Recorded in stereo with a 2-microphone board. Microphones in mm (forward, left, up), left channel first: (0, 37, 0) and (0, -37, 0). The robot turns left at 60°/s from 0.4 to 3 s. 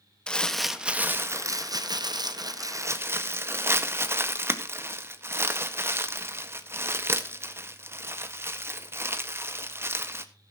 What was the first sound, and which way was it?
Crumpling, 10° left (ahead or behind).